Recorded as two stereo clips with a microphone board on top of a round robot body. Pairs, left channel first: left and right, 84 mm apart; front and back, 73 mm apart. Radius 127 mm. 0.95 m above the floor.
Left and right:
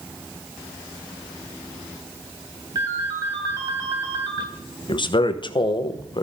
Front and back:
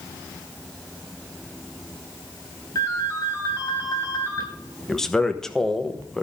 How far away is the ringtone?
About 3.5 m.